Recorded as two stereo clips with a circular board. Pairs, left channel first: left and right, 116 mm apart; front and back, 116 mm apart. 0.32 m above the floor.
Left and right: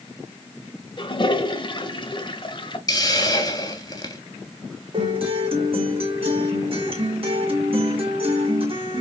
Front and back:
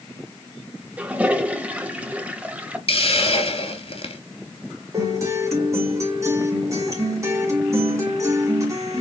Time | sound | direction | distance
1.0 | a toilet flushing | 105° left | 0.7 m
2.9 | a hiss | 35° left | 0.9 m
4.9 | a guitar | 120° right | 2.5 m